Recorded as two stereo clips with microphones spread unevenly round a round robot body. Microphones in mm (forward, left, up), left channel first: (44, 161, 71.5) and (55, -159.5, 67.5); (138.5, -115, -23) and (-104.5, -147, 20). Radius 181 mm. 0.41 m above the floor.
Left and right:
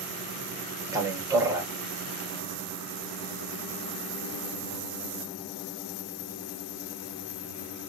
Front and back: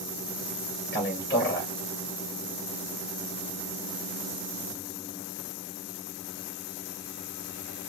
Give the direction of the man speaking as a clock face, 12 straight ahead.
12 o'clock.